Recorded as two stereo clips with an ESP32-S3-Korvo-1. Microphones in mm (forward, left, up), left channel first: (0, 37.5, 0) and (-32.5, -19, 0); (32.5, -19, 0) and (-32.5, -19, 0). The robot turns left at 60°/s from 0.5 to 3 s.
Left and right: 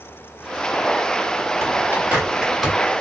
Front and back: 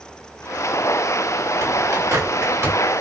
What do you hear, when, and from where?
1.6 s a bird: 150° right, 2 m; by 2.8 s 140° left, 2 m